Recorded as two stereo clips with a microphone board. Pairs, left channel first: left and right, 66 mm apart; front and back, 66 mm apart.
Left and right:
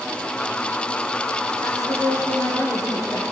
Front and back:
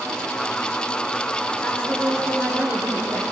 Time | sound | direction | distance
1.6 | a woman speaking | 55° left | 7 m